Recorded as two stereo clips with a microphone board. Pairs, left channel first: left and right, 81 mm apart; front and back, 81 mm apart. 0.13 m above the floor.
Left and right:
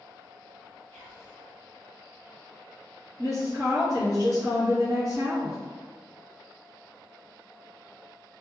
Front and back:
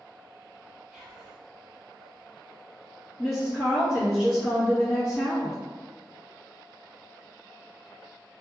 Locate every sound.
0.9 s whispering: 105° left, 1.2 m
3.2 s a woman speaking: 85° right, 1.7 m